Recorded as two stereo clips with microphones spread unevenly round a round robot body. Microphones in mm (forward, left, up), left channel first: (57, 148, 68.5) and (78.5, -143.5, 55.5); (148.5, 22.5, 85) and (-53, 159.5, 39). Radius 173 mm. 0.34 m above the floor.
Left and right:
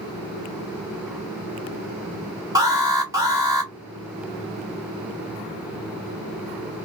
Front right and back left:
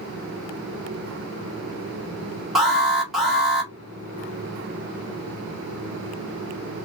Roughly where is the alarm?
Behind right.